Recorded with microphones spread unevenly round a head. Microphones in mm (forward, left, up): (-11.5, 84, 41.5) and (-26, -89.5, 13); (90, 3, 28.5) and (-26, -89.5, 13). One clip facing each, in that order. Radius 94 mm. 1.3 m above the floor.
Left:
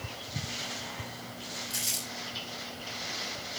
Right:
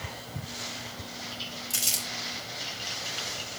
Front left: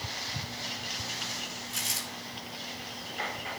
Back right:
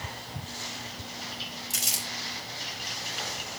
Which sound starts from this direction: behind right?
Crumpling, at 1.7 s.